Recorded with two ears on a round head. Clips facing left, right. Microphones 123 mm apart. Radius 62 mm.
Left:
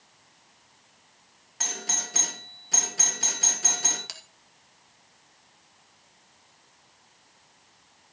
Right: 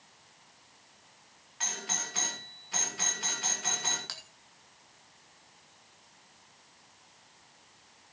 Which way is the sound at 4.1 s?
20° left (ahead or behind).